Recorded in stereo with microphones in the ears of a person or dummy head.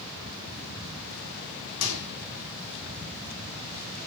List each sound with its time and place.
1.8 s a microwave: 75° left (ahead or behind), 4.5 m